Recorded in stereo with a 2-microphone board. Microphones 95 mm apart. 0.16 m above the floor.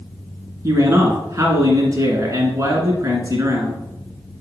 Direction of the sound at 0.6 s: 35° right (ahead or behind).